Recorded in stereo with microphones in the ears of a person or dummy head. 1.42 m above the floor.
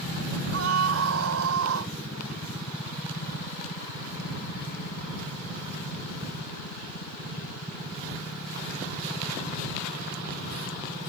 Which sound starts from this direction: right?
A scream, at 0.5 s.